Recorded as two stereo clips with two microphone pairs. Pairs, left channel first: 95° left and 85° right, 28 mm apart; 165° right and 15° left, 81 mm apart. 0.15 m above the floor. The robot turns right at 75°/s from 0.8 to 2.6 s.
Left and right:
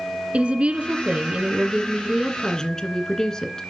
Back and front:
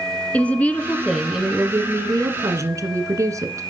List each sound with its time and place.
0.3 s a woman speaking: 100° right, 1.8 m; by 3.6 s 35° left, 1.8 m